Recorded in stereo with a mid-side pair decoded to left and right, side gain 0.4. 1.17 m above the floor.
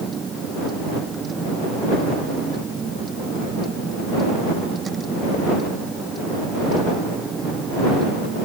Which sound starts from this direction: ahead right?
A vehicle, at 0.0 s.